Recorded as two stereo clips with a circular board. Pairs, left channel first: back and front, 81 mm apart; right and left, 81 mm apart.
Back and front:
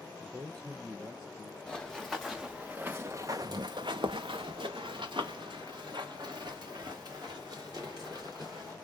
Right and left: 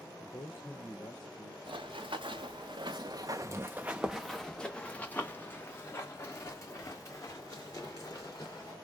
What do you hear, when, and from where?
0.2 s a man speaking: 35° right, 3 m; by 1.6 s 60° right, 3 m
1.7 s running footsteps: 95° left, 1.1 m; by 8.8 s 40° right, 3 m